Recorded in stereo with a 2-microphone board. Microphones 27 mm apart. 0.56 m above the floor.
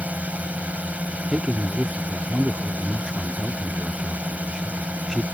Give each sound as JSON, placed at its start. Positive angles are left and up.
{"t": 0.0, "sound": "a drone", "side_deg": -60}
{"t": 1.3, "sound": "a man speaking", "side_deg": -20}